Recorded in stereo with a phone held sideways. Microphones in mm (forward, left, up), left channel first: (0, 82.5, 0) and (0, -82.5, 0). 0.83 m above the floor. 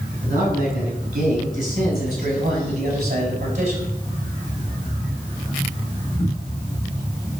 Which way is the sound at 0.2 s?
50° right (ahead or behind).